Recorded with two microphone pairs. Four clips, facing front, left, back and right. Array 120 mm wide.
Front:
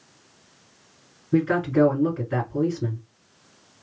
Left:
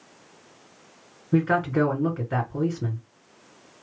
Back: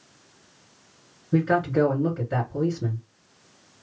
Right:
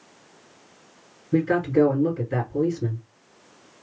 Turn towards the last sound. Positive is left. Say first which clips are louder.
# right 2 dB, front 1 dB
turn(degrees=90)